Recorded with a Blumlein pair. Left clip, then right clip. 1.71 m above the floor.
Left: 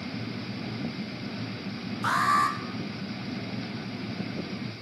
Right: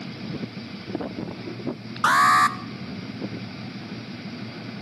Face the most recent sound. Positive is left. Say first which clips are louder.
# right 7 dB
turn(degrees=-30)